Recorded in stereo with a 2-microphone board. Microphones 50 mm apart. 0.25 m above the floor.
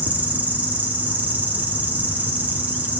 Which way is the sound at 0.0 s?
30° right (ahead or behind).